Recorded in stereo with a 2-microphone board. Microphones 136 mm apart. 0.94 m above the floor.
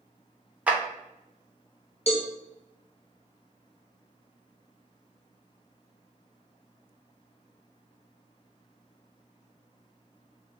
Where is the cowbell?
50° left (ahead or behind), 0.5 m.